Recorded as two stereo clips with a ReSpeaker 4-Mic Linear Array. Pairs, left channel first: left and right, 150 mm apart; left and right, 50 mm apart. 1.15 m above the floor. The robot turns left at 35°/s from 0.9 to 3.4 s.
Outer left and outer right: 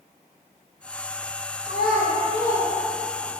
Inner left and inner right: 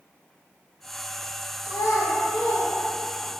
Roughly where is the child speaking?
Left.